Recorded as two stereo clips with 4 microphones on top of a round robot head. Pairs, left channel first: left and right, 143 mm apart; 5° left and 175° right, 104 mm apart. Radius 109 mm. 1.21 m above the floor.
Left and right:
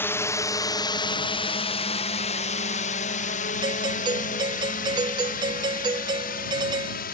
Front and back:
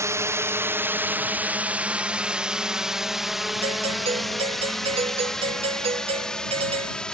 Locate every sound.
0.0 s a drone: 155° left; by 7.2 s 90° left
3.6 s a doorbell: 150° right